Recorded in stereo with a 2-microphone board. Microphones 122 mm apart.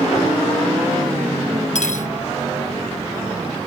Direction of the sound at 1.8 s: 80° left.